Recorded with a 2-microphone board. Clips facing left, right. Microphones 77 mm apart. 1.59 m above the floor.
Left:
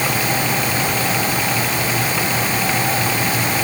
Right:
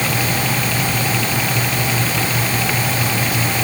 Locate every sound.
Only background noise.